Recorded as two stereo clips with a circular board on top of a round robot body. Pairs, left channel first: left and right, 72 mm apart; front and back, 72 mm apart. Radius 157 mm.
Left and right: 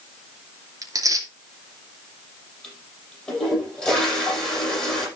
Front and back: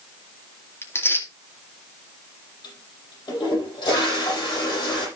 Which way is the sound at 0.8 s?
55° right.